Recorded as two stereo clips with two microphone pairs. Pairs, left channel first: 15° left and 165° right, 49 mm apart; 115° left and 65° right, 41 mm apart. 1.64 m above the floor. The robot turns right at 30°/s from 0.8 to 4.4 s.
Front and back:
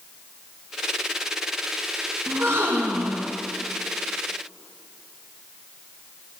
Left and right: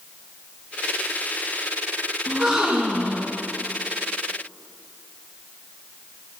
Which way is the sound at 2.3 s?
145° right.